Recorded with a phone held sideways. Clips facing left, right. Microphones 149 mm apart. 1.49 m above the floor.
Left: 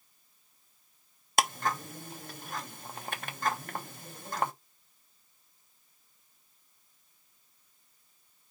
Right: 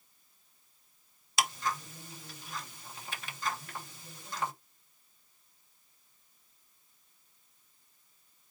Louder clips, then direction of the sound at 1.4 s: Left 4 dB; 55° left (ahead or behind).